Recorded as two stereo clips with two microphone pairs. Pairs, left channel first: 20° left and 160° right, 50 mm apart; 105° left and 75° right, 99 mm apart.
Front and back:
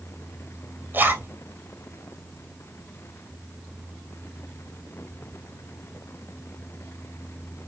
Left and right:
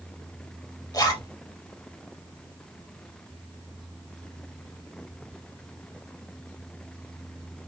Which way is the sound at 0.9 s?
160° left.